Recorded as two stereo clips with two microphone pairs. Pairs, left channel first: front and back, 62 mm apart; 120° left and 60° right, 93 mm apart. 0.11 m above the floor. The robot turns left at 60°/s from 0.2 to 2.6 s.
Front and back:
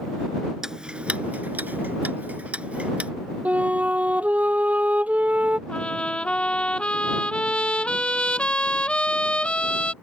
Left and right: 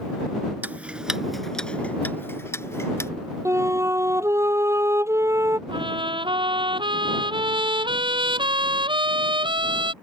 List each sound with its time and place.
0.6 s ticking: 100° right; by 3.1 s 140° left
3.5 s a flute: 115° right
5.7 s a trumpet: 65° right